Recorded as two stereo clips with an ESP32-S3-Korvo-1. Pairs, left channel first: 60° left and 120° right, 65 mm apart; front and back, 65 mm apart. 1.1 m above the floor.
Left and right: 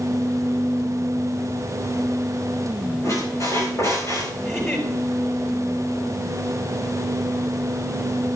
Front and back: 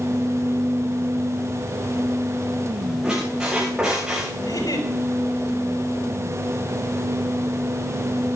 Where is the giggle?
5° left, 5 m.